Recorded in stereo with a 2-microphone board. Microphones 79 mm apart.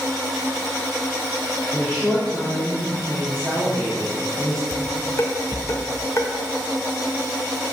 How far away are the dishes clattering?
About 1.6 m.